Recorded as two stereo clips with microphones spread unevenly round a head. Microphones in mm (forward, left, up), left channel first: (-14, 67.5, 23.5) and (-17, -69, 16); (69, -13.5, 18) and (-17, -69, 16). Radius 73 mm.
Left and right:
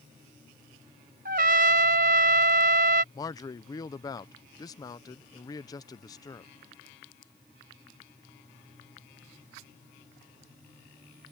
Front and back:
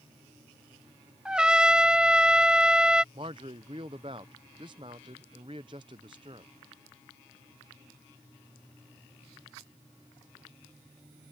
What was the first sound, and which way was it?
A trumpet, 65° right.